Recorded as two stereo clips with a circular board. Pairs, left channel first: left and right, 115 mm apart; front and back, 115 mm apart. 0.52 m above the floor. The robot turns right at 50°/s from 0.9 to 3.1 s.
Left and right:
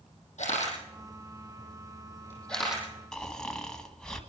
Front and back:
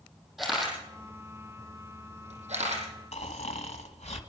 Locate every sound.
0.4 s a camera shutter: 95° left, 7.5 m; by 2.8 s 170° right, 7.5 m
3.1 s snoring: 5° left, 1.6 m